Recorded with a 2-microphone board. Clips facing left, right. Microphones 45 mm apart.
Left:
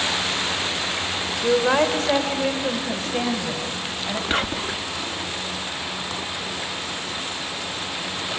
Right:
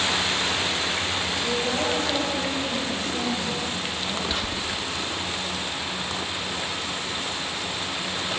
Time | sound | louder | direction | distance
1.4 | a woman speaking | left 10 dB | 80° left | 2.5 m
4.3 | whispering | left 4 dB | 50° left (ahead or behind) | 0.6 m